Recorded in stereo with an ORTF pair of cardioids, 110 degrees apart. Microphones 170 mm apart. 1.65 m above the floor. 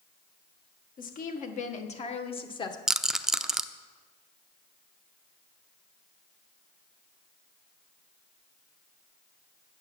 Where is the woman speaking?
55° left, 1.8 m; by 2.8 s 25° left, 1.5 m.